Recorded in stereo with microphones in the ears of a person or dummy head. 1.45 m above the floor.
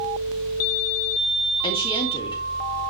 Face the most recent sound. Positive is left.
turn(degrees=25)  # may be behind; listen again after turning